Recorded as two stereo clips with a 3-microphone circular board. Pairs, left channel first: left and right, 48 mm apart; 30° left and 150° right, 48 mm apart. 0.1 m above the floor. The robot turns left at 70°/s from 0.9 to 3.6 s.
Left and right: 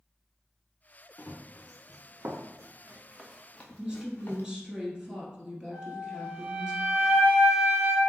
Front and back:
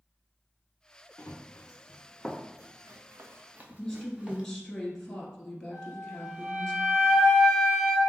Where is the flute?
125° right, 1.7 m.